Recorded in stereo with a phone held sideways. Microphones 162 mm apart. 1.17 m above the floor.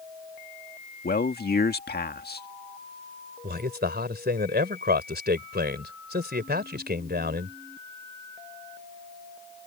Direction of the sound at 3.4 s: 85° right.